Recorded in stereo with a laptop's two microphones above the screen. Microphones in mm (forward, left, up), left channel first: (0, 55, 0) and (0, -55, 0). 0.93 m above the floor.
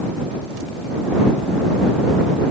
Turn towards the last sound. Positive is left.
No sound to turn to.